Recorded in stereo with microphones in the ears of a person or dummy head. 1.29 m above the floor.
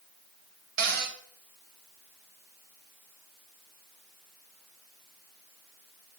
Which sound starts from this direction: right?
A cupboard door, at 0.8 s.